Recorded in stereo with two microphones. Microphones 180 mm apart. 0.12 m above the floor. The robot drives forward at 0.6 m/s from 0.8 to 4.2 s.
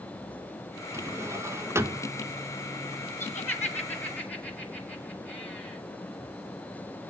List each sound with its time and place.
0.9 s a drawer: 15° right (ahead or behind), 0.6 m; by 2.1 s 10° right (ahead or behind), 0.8 m
3.2 s laughter: 10° left (ahead or behind), 1.5 m